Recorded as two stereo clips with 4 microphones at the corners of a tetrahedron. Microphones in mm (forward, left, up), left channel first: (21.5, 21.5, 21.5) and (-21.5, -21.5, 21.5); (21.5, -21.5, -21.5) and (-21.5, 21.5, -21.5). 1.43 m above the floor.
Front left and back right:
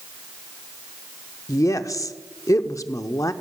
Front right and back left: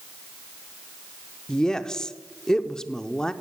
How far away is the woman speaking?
About 0.6 m.